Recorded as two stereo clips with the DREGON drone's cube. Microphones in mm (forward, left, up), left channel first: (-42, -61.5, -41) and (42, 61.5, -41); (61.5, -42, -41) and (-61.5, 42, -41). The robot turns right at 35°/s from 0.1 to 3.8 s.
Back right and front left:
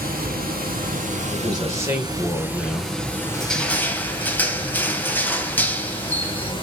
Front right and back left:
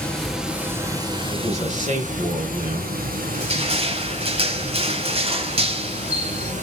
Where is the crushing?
145° left, 1.5 m; by 6.5 s 160° left, 1.5 m.